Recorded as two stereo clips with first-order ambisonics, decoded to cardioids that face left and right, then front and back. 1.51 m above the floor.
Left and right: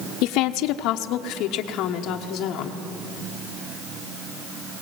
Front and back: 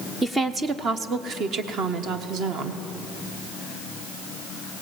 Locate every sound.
0.2 s a woman speaking: 95° left, 0.6 m; by 2.8 s 135° left, 1.8 m